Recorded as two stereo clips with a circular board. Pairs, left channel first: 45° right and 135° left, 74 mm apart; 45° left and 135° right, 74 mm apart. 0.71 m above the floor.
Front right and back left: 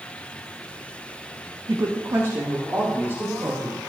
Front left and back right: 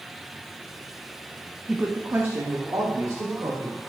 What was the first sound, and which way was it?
A woman speaking, 145° left.